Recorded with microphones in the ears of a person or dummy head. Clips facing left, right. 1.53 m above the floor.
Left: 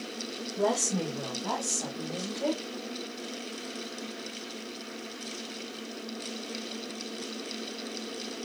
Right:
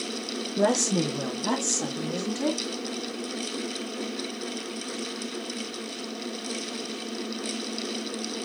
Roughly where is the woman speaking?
Right.